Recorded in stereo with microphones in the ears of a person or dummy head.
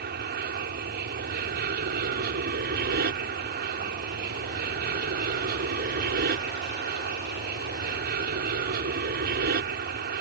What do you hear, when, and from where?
0.0 s an aircraft: 55° right (ahead or behind)